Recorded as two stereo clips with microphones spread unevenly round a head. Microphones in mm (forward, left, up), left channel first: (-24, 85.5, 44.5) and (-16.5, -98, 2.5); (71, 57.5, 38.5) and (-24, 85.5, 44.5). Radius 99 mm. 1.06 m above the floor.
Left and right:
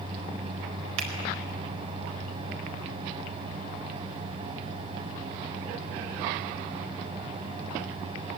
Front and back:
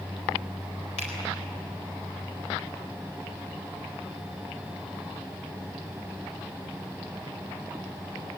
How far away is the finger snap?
About 4 m.